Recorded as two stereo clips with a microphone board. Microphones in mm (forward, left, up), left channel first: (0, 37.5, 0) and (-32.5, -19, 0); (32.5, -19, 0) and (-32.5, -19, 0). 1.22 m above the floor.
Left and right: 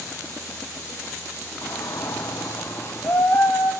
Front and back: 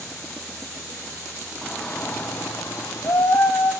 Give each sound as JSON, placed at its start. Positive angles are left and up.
{"t": 1.6, "sound": "a shout", "azimuth_deg": 85, "distance_m": 0.7}